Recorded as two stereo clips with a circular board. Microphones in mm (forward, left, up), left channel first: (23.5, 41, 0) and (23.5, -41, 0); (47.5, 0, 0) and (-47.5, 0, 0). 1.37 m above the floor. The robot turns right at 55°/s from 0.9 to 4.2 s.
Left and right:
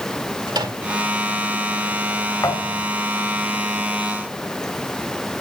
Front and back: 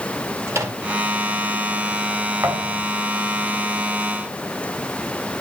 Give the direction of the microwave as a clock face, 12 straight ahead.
4 o'clock.